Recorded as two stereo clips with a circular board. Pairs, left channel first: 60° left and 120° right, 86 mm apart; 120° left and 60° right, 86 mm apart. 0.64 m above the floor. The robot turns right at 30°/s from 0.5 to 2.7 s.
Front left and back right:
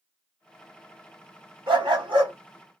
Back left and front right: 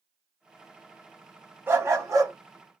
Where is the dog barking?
125° right, 1.1 m; by 2.3 s 105° right, 1.1 m.